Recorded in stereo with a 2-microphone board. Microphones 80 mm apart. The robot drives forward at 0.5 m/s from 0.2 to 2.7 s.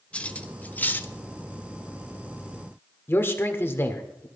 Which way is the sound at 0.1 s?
15° left (ahead or behind).